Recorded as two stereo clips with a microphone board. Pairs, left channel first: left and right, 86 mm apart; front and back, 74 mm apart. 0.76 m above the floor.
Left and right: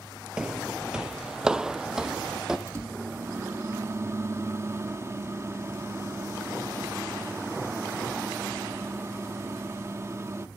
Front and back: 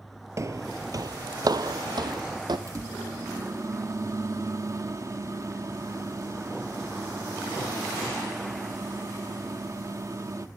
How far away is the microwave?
About 1.3 m.